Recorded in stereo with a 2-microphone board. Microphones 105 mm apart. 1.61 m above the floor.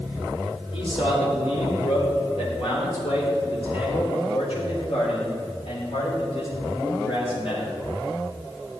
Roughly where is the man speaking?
Left.